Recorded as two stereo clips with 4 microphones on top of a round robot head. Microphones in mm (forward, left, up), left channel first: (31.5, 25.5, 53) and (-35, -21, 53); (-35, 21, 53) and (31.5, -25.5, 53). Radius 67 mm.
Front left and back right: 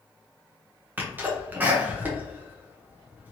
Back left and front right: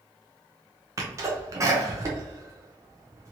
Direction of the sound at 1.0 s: 80° right.